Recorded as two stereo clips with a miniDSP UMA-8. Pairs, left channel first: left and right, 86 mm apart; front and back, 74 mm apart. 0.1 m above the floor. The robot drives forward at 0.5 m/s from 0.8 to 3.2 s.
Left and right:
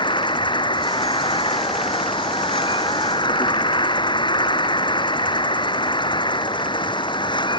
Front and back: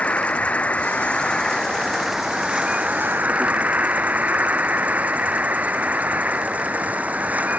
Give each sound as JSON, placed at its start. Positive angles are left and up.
{"t": 0.0, "sound": "an insect", "azimuth_deg": 70}